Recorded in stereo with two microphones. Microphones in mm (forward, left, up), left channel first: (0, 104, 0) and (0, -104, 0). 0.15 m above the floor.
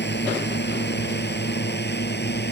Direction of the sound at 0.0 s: 55° left (ahead or behind).